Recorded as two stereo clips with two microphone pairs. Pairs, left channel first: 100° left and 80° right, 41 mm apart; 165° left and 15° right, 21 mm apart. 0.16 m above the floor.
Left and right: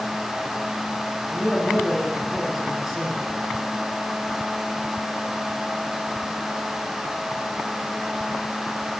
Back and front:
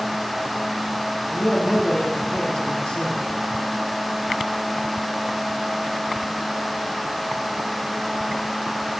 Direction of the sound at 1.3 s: 170° right.